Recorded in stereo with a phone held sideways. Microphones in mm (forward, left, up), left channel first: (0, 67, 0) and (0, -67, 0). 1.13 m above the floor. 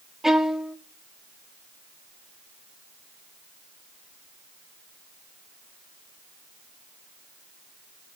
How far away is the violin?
About 0.8 m.